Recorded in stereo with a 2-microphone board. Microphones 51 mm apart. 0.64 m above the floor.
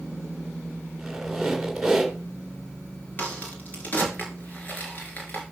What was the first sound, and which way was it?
A squeak, 5° right (ahead or behind).